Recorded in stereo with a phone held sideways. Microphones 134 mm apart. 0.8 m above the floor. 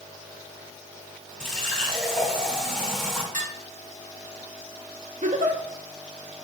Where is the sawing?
I don't hear sawing.